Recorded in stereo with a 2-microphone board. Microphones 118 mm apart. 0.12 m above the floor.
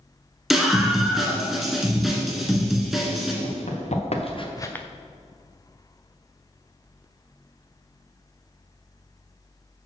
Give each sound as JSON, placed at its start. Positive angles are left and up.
{"t": 0.5, "sound": "a scream", "side_deg": 0, "distance_m": 1.7}
{"t": 3.4, "sound": "running footsteps", "side_deg": 80, "distance_m": 2.0}